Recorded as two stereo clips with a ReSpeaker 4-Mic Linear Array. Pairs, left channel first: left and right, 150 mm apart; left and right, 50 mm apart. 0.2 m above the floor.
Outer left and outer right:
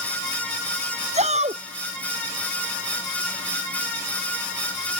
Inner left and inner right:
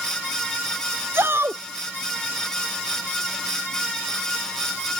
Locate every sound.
1.1 s a shout: 50° right (ahead or behind)